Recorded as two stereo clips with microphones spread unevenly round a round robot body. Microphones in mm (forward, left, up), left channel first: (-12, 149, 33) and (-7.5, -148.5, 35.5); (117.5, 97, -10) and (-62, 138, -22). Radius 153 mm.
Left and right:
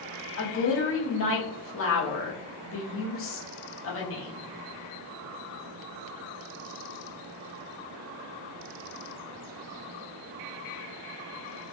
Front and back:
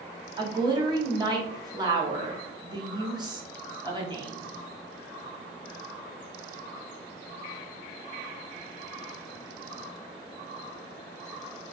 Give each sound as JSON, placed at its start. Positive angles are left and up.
{"t": 0.4, "sound": "a woman speaking", "azimuth_deg": 110, "distance_m": 0.9}